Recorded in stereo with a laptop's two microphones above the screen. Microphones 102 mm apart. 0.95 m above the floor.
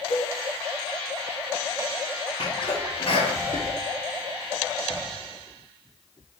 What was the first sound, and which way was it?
A cowbell, 45° left (ahead or behind).